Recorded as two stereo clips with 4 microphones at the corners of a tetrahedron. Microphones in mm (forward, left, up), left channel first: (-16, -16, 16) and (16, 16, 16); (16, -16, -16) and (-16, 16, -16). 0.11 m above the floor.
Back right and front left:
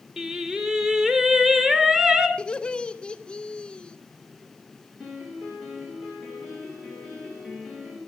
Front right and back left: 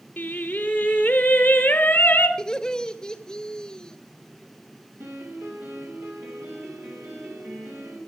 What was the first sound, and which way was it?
Singing, 20° right.